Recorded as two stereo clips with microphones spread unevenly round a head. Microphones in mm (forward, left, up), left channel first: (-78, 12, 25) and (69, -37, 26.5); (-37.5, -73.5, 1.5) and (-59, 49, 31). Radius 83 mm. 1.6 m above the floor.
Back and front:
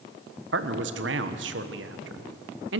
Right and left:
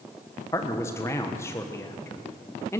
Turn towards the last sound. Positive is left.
turn(degrees=-5)